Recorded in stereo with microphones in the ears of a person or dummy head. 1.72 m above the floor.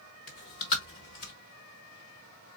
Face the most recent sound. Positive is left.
turn(degrees=30)  # may be behind; listen again after turning